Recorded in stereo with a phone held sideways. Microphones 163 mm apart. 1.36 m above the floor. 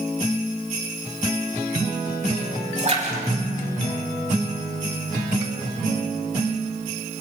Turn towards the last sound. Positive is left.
turn(degrees=-45)  # may be behind; listen again after turning